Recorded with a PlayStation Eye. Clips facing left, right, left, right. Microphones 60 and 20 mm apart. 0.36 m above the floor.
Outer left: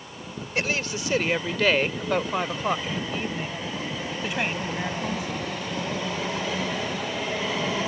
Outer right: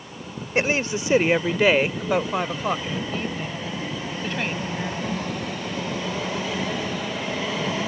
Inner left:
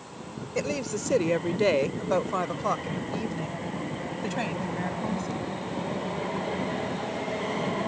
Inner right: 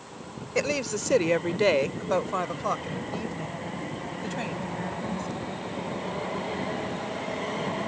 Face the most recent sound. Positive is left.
turn(degrees=10)  # may be behind; listen again after turning